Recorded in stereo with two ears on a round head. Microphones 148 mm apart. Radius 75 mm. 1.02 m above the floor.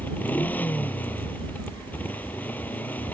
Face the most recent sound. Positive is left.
turn(degrees=10)  # may be behind; listen again after turning